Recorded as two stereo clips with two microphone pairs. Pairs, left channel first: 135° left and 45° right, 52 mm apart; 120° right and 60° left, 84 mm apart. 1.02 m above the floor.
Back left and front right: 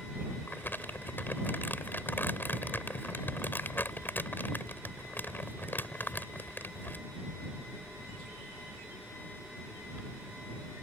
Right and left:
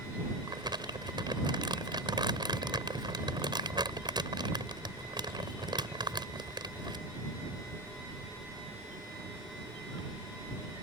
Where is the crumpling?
85° left.